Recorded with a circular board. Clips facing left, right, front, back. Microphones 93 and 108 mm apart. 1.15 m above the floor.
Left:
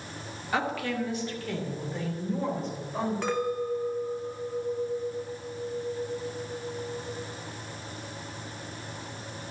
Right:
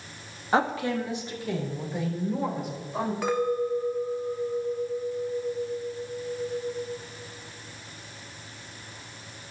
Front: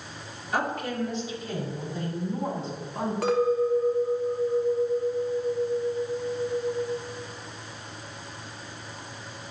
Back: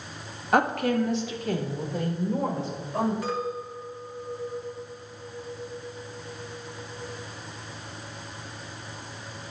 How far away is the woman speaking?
About 1.6 m.